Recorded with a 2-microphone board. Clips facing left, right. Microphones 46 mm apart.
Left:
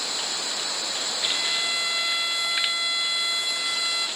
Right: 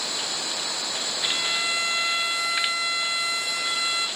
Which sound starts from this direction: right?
A violin, at 1.2 s.